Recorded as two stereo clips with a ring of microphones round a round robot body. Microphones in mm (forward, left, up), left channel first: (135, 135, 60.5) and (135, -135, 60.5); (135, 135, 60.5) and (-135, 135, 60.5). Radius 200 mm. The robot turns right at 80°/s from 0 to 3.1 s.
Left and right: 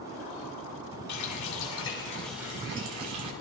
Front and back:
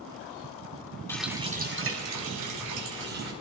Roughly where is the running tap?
Left.